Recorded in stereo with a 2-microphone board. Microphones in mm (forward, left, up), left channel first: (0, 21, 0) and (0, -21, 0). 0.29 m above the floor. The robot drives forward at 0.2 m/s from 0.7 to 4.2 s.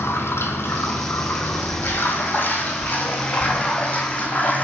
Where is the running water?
65° left (ahead or behind), 0.8 m; by 4.7 s 35° left (ahead or behind), 1.2 m.